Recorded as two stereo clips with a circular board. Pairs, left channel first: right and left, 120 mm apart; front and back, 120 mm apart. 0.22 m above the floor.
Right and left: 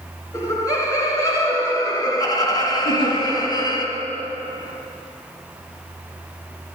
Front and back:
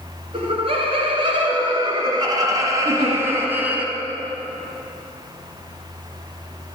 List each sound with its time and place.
0.3 s laughter: 150° right, 3 m; by 3.9 s 110° right, 1.9 m
2.9 s a giggle: 130° right, 4 m